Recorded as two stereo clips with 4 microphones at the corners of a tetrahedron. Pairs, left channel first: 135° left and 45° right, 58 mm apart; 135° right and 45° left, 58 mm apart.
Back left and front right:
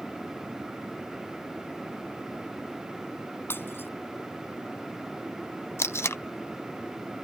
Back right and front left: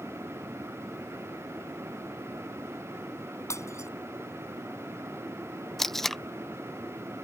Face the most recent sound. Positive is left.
turn(degrees=140)